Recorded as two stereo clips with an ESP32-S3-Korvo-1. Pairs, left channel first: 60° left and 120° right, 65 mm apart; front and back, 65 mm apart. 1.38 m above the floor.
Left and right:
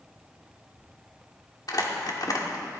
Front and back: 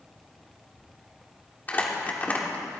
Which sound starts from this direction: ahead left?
Crumpling, at 1.7 s.